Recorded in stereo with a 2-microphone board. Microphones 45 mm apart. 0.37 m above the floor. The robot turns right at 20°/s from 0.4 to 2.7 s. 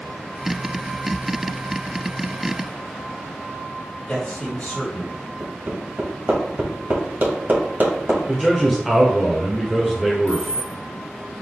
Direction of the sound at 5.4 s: 50° right (ahead or behind).